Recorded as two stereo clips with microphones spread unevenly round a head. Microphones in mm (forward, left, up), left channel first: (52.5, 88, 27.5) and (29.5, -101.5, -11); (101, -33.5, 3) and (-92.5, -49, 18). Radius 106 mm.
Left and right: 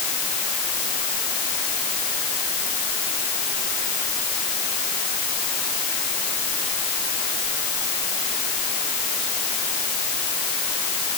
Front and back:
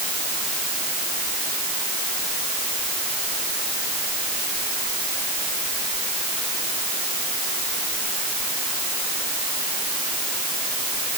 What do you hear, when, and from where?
Only background noise.